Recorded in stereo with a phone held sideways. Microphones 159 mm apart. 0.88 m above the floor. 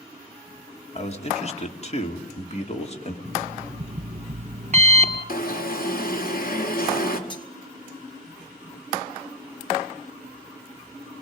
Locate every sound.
0.9 s a man speaking: 40° left (ahead or behind), 2.5 m
3.2 s an alarm clock: 45° right (ahead or behind), 3 m
5.3 s an alarm: 65° left (ahead or behind), 2 m
7.3 s cutlery clinking: 30° left (ahead or behind), 3 m